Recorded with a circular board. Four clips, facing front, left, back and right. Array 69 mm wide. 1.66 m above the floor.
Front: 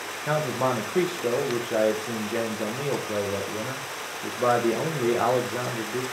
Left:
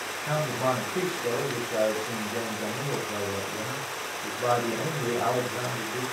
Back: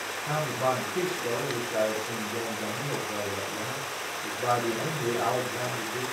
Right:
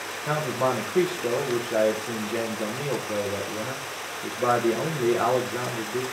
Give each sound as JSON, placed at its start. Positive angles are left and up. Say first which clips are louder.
{"t": 0.3, "sound": "a man speaking", "louder": "right 2 dB, front 3 dB", "azimuth_deg": -30, "distance_m": 1.1}